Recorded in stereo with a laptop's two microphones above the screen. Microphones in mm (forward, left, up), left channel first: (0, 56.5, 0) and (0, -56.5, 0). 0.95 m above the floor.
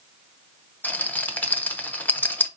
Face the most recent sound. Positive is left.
turn(degrees=15)  # may be behind; listen again after turning